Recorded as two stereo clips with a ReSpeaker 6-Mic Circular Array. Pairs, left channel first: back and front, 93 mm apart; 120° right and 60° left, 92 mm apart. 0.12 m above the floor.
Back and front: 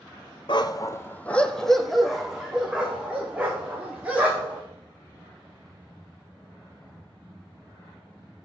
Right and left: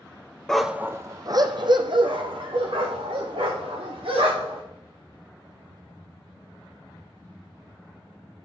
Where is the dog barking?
155° left, 0.6 m; by 4.6 s 75° left, 4 m.